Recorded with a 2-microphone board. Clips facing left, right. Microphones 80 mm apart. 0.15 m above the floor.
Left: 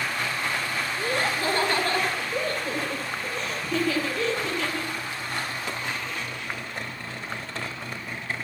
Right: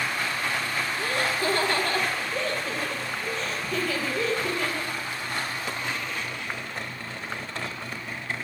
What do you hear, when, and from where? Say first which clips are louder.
1.0 s laughter: left 1 dB; 25° left (ahead or behind), 4.5 m; by 4.9 s 10° right (ahead or behind), 5 m